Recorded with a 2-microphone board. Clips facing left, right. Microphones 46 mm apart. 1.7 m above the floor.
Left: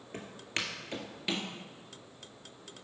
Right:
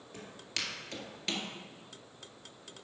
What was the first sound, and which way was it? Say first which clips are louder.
Footsteps: left 4 dB; 35° left (ahead or behind).